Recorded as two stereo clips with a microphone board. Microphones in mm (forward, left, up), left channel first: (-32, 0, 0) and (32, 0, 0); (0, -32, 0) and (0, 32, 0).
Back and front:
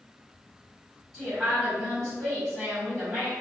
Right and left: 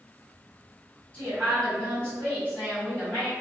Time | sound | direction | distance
1.1 | a woman speaking | 105° right | 1.5 m